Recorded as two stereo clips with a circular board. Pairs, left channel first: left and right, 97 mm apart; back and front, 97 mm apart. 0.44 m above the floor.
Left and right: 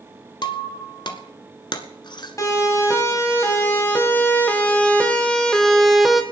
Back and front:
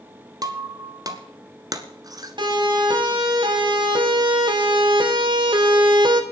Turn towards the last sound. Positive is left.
turn(degrees=-5)